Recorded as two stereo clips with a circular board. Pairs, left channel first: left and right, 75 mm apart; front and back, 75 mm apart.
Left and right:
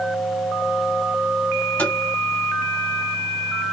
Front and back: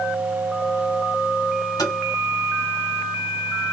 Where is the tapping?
15° left, 2.5 m.